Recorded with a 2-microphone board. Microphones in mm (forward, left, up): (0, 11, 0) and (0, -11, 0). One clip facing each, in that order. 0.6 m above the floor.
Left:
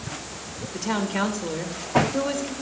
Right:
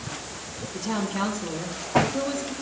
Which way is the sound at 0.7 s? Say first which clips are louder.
Left 2 dB; 60° left (ahead or behind).